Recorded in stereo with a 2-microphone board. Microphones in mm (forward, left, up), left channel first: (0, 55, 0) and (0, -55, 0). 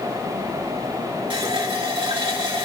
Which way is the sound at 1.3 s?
55° right (ahead or behind).